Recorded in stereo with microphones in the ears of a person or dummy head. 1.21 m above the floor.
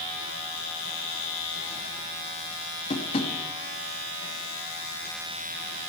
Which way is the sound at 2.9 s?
30° left (ahead or behind).